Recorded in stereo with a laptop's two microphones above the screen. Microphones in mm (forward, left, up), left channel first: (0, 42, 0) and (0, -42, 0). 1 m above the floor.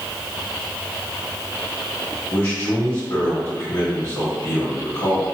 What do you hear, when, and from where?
2.3 s a man speaking: 45° left (ahead or behind), 1.6 m